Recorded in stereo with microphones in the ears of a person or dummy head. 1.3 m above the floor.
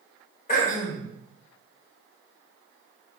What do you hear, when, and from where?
0.5 s throat clearing: 45° left (ahead or behind), 1.2 m